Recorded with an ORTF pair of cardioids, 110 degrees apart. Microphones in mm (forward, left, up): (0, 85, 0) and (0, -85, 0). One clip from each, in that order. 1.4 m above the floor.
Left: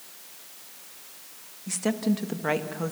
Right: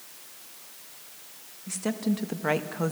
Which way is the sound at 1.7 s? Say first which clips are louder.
Left 3 dB; 20° left.